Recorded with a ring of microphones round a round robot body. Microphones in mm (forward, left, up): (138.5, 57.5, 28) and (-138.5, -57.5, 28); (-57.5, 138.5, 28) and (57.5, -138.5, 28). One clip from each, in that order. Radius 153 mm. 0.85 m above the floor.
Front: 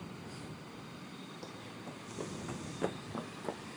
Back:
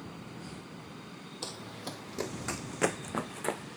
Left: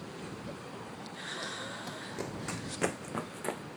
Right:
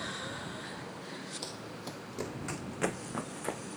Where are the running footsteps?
135° right; by 3.6 s 170° right.